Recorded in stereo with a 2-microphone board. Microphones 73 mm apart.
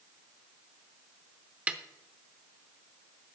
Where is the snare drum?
20° right (ahead or behind), 0.7 m.